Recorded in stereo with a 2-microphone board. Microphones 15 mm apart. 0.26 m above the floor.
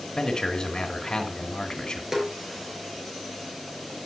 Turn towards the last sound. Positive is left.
turn(degrees=-25)  # may be behind; listen again after turning